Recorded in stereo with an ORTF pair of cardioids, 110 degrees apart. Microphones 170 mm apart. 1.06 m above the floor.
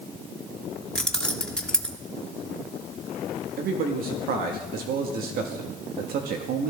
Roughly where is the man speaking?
Right.